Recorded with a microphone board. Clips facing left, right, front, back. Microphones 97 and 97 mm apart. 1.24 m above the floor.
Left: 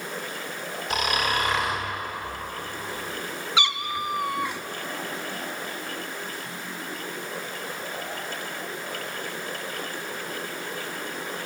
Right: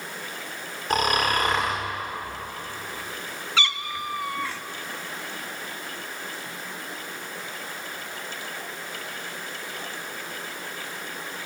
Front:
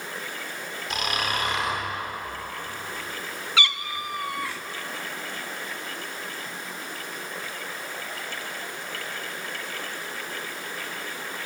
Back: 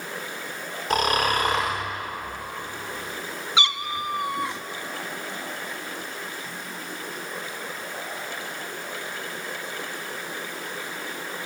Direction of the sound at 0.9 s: 135° right.